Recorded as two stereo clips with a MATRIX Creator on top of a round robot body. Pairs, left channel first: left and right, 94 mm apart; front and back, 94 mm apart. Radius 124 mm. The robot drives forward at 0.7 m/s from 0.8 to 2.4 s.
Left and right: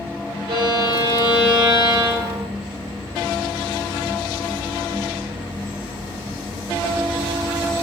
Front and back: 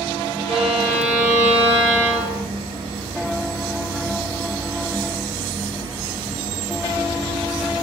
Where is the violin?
100° right, 4 m; by 2.5 s 115° right, 4 m.